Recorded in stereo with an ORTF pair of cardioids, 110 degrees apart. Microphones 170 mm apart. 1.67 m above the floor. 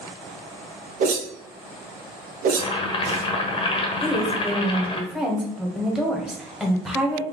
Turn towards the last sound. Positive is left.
turn(degrees=-5)